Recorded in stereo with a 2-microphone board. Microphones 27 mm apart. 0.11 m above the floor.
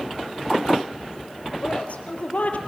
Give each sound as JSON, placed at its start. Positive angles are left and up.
{"t": 1.6, "sound": "a woman speaking", "side_deg": 55, "distance_m": 2.5}